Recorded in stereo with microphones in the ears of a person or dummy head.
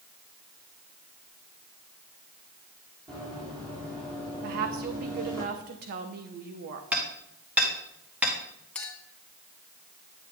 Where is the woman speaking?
50° right (ahead or behind), 1.0 m.